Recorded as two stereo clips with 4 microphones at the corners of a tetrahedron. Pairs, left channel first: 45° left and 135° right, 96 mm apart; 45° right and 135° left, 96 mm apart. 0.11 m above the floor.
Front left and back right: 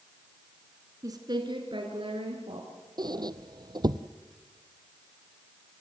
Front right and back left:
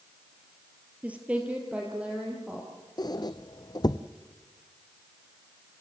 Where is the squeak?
90° right, 0.7 m.